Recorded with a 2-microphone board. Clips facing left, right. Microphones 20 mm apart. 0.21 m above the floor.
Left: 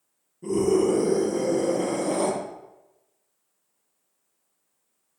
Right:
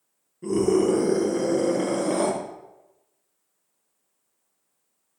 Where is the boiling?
No boiling in this recording.